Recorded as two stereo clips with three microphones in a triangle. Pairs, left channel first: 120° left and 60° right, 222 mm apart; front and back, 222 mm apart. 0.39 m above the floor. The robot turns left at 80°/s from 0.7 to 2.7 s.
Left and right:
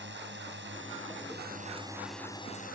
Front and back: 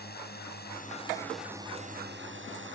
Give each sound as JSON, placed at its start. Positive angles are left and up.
{"t": 0.0, "sound": "a drone", "azimuth_deg": -35}